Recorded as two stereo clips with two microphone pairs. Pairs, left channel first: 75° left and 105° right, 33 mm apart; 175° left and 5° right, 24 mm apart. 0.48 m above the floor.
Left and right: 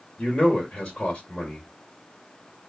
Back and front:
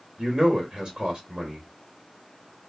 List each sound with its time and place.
0.2 s a man speaking: 30° left, 0.9 m